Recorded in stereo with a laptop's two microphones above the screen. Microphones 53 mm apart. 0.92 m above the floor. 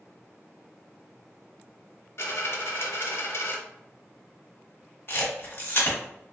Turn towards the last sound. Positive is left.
turn(degrees=45)  # may be behind; listen again after turning